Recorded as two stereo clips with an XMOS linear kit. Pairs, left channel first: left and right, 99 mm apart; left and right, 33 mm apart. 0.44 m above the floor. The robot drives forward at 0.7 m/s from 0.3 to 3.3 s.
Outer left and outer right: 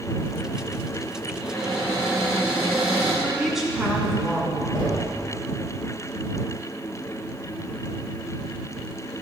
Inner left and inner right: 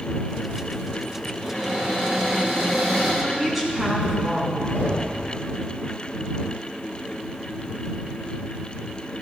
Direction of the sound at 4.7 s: 45° left (ahead or behind).